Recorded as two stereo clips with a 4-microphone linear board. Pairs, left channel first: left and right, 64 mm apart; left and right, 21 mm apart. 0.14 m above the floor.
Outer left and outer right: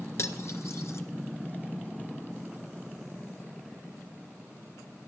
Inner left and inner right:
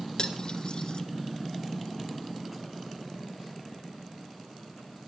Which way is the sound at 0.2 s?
50° left (ahead or behind).